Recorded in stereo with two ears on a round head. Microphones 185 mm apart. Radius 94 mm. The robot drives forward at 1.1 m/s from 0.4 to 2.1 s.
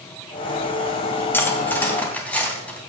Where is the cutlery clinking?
10° left (ahead or behind), 2 m.